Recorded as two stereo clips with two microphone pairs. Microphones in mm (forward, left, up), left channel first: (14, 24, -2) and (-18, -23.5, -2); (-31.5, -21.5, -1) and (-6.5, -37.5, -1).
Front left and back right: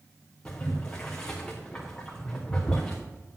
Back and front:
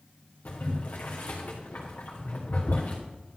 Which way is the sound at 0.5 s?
130° left.